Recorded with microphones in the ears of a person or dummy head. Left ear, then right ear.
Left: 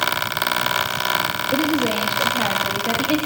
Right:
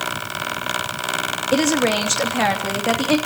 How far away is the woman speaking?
About 2.5 m.